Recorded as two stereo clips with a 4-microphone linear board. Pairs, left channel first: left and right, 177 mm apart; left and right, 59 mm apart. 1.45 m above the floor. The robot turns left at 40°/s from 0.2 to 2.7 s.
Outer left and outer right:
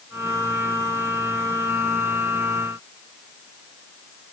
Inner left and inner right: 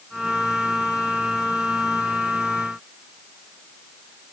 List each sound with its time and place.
Only background noise.